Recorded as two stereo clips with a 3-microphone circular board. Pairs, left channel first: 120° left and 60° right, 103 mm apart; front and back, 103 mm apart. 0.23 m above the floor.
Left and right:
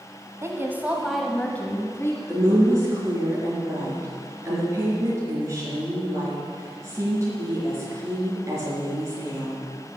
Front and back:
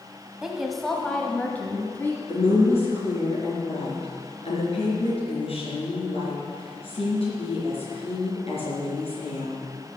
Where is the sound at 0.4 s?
100° right, 1.2 m; by 2.2 s 65° left, 1.6 m.